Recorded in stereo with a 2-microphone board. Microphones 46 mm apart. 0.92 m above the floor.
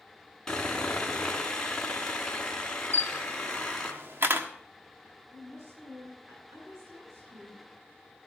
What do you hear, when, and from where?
0.5 s sawing: 15° left (ahead or behind), 2.5 m
2.9 s a camera shutter: 60° right (ahead or behind), 1.1 m
5.3 s a woman speaking: 80° right, 9 m